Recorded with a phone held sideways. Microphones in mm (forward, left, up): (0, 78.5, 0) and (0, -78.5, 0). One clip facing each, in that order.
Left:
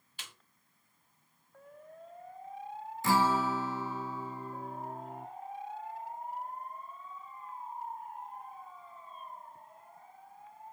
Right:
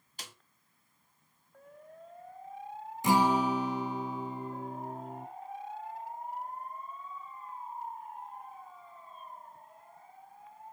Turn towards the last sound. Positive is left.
turn(degrees=-15)  # may be behind; listen again after turning